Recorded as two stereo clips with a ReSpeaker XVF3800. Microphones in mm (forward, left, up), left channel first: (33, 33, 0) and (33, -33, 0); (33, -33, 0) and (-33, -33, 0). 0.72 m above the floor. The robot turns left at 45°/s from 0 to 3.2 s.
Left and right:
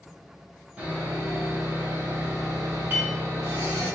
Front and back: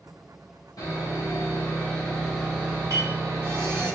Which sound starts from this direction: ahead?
Sawing, at 0.8 s.